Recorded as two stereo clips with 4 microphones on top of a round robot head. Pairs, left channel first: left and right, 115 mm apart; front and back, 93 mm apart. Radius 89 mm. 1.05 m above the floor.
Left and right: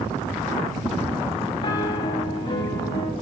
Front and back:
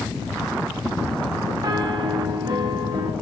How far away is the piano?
About 2 m.